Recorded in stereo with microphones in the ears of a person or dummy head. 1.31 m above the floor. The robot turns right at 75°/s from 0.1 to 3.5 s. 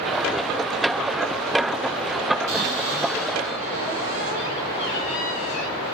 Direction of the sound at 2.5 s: 10° right.